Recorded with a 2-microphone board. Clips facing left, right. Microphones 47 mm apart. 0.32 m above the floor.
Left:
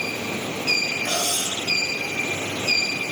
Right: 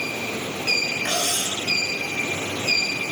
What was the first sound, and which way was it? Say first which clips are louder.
Cutlery clinking: even; 55° right (ahead or behind).